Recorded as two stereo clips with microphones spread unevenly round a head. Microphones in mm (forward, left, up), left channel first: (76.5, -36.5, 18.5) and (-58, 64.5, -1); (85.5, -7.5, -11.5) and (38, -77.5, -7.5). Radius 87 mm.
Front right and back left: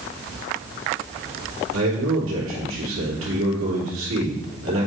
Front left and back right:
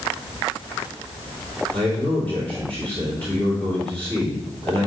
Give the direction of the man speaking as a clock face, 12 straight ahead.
7 o'clock.